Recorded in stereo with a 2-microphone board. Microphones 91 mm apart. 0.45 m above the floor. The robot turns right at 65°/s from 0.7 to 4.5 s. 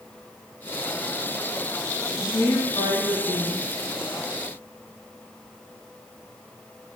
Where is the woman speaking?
15° left, 2.5 m; by 3.7 s 115° left, 2.5 m.